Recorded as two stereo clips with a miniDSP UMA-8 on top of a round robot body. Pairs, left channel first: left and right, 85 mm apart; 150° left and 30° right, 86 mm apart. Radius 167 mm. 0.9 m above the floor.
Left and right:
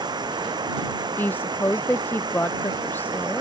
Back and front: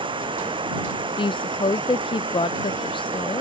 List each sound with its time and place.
0.0 s running water: 50° right
1.2 s a woman speaking: 160° left